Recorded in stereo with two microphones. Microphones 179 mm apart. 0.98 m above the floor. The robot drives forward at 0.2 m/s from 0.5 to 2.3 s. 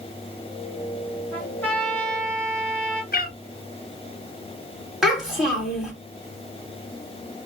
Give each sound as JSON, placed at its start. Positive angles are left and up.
{"t": 1.3, "sound": "a trumpet", "side_deg": 10, "distance_m": 1.3}
{"t": 3.1, "sound": "a cat meowing", "side_deg": 60, "distance_m": 0.7}
{"t": 5.0, "sound": "a child speaking", "side_deg": 0, "distance_m": 1.8}